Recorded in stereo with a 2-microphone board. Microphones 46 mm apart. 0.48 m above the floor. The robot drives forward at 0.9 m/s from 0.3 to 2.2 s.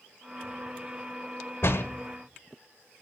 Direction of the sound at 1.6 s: 60° left (ahead or behind).